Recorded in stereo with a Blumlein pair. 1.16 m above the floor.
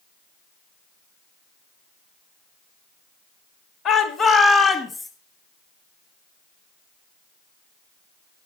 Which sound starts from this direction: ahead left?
A shout, at 3.9 s.